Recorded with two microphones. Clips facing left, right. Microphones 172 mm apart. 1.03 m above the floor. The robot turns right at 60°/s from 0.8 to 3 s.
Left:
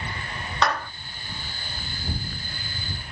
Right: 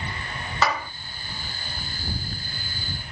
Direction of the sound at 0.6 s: 5° right (ahead or behind).